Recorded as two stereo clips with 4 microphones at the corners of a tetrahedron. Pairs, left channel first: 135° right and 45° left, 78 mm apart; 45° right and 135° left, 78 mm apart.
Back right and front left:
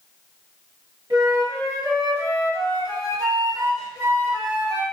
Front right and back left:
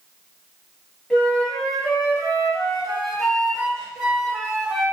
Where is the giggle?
No giggle in this recording.